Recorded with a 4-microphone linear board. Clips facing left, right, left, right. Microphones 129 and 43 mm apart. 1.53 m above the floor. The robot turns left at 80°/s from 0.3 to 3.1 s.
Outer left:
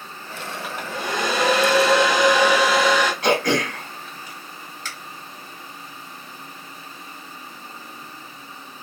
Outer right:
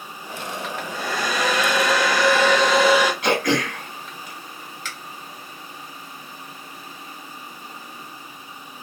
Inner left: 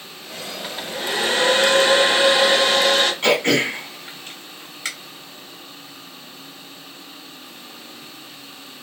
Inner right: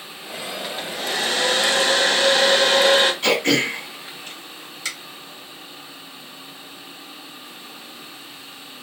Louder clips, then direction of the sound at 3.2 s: Outer left 1 dB, inner left 1 dB; 40° left (ahead or behind).